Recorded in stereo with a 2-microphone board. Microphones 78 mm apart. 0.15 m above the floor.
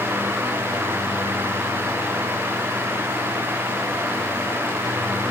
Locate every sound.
Only background noise.